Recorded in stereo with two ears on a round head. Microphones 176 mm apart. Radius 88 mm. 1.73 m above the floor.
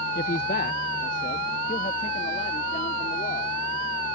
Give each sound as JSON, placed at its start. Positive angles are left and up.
{"t": 0.1, "sound": "a man speaking", "side_deg": 50}